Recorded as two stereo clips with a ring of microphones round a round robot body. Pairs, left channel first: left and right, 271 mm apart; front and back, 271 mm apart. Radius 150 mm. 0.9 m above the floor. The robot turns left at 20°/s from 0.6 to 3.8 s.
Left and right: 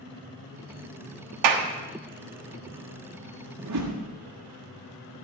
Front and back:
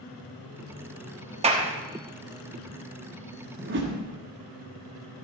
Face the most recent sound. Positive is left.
turn(degrees=-130)